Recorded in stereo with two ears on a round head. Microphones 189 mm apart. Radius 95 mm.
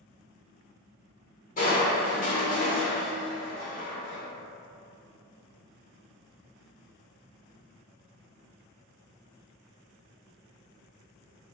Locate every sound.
1.6 s crushing: 40° left (ahead or behind), 1.2 m